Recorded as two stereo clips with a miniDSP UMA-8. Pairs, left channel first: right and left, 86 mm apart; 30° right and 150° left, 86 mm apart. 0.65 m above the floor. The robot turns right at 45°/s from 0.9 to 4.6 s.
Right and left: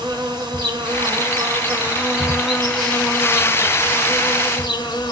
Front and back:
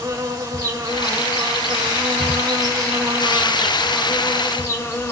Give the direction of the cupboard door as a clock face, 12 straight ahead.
No cupboard door in this recording.